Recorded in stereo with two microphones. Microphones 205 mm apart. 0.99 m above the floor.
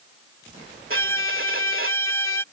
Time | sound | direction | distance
0.9 | a violin | 80° right | ?